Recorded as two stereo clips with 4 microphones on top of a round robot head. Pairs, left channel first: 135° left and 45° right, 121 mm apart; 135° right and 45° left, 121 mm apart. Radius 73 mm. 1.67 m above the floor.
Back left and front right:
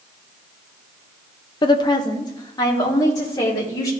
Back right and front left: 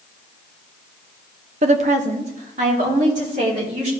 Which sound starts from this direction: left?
A woman speaking, at 1.6 s.